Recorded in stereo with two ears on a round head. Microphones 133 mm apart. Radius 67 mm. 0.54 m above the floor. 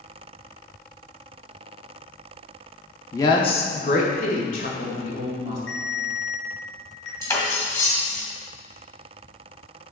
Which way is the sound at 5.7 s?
40° left (ahead or behind).